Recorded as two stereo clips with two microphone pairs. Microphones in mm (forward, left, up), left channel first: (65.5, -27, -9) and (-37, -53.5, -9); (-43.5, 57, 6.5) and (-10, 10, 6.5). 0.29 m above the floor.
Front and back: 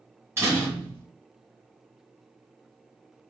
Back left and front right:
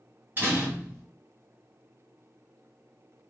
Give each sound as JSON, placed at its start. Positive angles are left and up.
{"t": 0.4, "sound": "a door slam", "azimuth_deg": -105, "distance_m": 1.8}